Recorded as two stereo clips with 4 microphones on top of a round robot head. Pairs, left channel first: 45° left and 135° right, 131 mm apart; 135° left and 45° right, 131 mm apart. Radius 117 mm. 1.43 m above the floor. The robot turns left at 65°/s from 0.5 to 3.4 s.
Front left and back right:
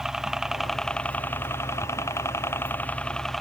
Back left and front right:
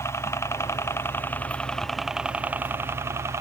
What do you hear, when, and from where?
0.0 s a helicopter: 145° left; by 3.4 s 45° right